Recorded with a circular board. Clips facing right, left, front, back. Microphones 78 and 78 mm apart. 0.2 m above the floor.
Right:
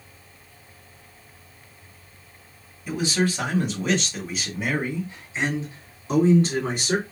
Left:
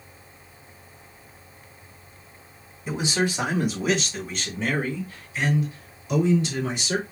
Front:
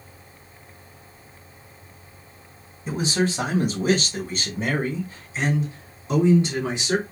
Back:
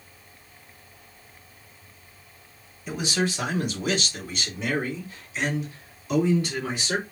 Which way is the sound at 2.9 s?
35° left.